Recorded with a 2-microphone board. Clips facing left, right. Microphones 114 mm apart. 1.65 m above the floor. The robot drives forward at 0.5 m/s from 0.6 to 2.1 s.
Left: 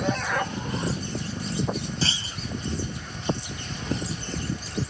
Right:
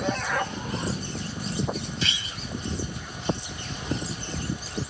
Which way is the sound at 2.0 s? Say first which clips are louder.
Left 3 dB; 35° left (ahead or behind).